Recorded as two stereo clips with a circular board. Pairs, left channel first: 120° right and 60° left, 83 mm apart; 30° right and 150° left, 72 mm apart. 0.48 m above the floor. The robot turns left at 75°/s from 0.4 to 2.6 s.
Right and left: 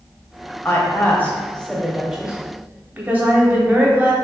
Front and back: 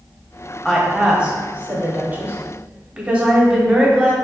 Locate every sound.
0.7 s a woman speaking: 115° right, 0.8 m; by 4.1 s 100° left, 0.8 m